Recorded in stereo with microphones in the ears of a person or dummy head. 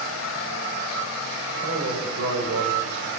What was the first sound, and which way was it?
A man speaking, 75° right (ahead or behind).